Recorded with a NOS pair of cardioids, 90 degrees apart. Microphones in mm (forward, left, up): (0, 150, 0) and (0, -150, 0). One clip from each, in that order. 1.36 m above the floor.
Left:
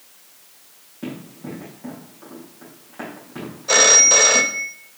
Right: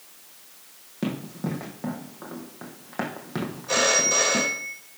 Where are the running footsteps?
65° right, 4 m.